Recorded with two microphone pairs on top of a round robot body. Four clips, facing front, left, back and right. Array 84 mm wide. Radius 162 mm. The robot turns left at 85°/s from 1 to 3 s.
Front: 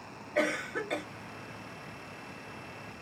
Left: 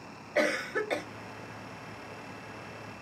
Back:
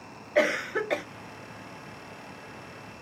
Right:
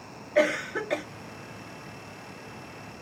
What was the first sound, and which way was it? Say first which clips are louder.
A cough: right 4 dB, back 6 dB; 170° right.